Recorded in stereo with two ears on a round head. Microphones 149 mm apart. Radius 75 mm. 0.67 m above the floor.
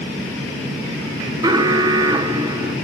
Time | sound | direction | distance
1.4 | an alarm | 25° right (ahead or behind) | 1.7 m